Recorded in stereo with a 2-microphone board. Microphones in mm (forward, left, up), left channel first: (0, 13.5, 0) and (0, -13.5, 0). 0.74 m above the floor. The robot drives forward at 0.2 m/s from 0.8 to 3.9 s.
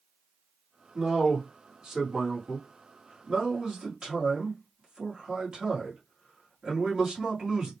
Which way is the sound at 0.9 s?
30° right (ahead or behind).